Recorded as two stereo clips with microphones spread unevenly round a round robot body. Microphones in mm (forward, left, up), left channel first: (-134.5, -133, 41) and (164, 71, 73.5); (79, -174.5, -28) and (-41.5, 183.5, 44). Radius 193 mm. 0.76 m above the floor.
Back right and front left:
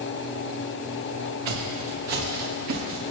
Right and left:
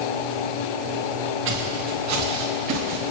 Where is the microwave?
I don't hear a microwave.